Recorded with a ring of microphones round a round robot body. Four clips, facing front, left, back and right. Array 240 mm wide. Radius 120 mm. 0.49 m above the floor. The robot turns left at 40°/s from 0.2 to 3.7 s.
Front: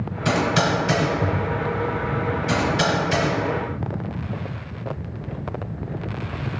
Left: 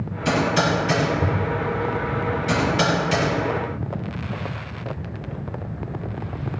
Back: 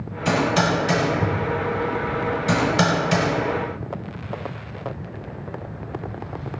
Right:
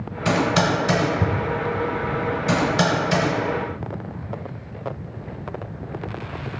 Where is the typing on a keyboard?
50° right, 1.1 m; by 3.3 s 175° right, 1.1 m.